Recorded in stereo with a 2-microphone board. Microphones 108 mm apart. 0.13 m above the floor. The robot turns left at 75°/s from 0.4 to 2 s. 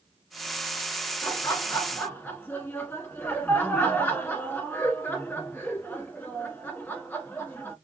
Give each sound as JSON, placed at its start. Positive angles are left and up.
{"t": 1.2, "sound": "laughter", "side_deg": 25, "distance_m": 1.4}